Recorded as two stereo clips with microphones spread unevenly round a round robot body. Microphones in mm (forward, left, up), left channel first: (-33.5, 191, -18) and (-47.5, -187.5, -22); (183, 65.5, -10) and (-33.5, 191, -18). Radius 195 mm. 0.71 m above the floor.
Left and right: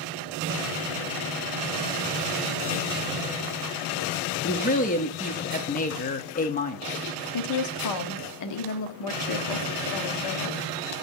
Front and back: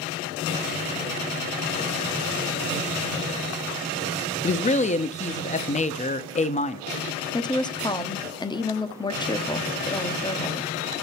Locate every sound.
4.4 s a woman speaking: 25° left, 0.6 m
7.3 s a woman speaking: 45° left, 0.9 m